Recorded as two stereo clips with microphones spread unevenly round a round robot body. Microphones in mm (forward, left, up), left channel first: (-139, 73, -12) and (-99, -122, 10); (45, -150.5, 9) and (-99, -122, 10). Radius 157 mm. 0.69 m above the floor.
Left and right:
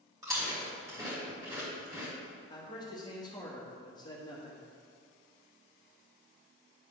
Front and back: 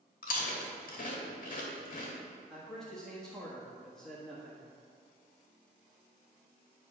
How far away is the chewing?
About 1.2 m.